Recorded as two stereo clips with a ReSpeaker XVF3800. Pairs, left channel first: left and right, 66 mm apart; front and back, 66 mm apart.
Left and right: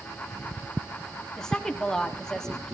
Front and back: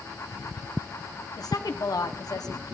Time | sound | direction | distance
1.4 | a woman speaking | 10° left | 0.9 m